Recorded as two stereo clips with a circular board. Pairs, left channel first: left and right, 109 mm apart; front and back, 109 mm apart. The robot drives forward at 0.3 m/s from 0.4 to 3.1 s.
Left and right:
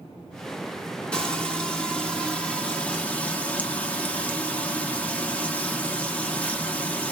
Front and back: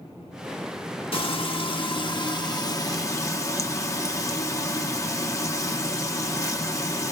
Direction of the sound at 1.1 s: 10° left.